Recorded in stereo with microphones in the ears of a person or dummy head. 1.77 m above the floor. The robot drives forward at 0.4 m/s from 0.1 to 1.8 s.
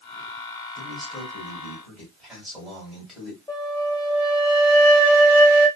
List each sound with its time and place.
0.8 s a man speaking: centre (ahead or behind), 1.1 m
3.5 s a flute: 15° left (ahead or behind), 0.7 m